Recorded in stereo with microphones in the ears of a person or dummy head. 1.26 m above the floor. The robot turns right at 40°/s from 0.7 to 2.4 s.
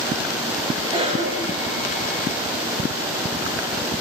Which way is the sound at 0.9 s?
30° right (ahead or behind).